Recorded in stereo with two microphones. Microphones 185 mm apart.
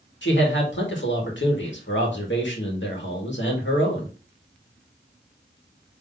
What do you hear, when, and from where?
0.2 s a man speaking: 80° left, 1.9 m